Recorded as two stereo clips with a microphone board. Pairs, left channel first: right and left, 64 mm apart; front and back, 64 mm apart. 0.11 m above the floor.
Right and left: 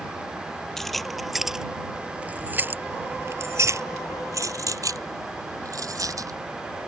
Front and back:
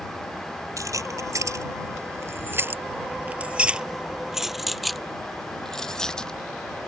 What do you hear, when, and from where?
0.8 s keys jangling: 175° right; by 6.3 s 80° left